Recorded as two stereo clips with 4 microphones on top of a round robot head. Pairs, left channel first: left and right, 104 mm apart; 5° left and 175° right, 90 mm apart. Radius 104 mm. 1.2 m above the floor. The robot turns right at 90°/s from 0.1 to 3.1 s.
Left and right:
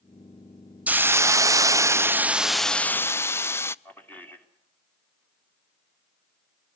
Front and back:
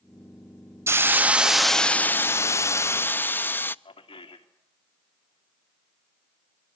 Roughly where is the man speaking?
Ahead.